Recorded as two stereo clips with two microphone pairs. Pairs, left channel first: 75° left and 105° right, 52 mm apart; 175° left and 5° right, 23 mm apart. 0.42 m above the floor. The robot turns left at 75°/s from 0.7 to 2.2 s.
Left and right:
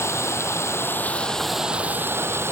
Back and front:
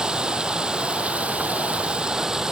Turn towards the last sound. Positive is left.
turn(degrees=-70)